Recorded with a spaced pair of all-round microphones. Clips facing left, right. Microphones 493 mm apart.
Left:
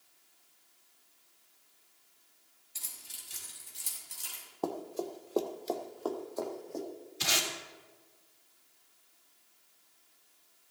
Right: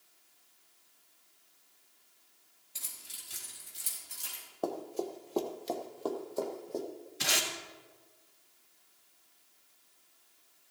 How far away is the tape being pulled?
About 2 m.